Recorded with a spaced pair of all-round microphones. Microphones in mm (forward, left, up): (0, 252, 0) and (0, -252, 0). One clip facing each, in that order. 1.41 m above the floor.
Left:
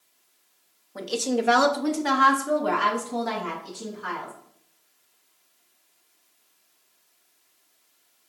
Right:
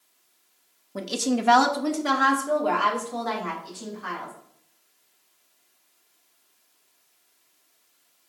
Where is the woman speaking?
55° right (ahead or behind), 0.6 m; by 4.3 s 55° left (ahead or behind), 1.6 m.